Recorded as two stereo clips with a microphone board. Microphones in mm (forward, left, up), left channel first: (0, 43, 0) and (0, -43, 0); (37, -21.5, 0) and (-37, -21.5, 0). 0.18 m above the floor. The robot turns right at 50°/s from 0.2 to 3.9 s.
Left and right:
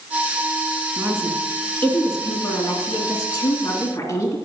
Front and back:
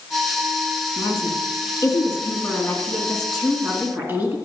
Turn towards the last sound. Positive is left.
turn(degrees=125)